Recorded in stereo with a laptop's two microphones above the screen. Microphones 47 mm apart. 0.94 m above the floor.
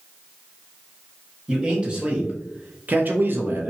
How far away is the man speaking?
About 1.7 m.